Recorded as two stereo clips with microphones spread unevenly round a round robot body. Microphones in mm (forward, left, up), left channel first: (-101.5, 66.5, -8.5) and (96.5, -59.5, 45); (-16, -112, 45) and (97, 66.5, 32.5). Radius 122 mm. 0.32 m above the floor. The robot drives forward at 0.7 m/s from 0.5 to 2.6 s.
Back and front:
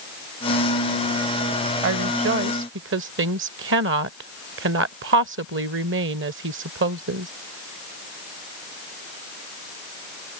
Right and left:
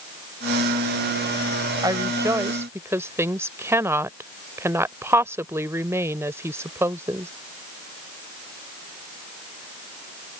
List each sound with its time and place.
1.8 s a woman speaking: 5° right; by 7.3 s 10° right